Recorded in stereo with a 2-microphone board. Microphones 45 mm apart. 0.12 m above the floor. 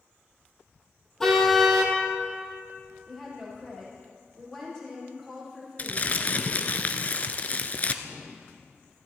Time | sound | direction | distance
1.2 | a car horn | 10° left (ahead or behind) | 2.5 m
3.1 | a woman speaking | 15° left (ahead or behind) | 7 m
5.8 | crumpling | 35° left (ahead or behind) | 0.9 m
8.0 | an explosion | 20° left (ahead or behind) | 2.5 m